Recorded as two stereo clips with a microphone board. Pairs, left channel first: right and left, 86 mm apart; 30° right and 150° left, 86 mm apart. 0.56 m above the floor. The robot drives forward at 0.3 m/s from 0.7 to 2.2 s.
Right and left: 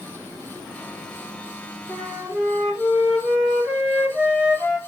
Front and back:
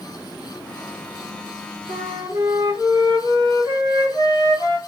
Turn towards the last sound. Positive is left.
turn(degrees=170)